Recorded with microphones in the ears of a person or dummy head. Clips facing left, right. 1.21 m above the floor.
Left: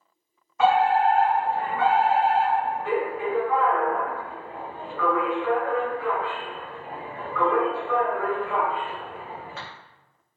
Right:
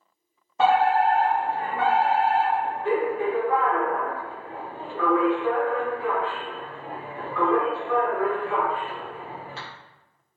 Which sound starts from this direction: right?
A fire alarm, at 0.6 s.